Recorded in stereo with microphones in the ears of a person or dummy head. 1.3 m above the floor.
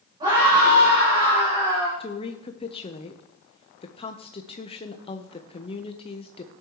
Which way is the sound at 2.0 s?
25° left (ahead or behind).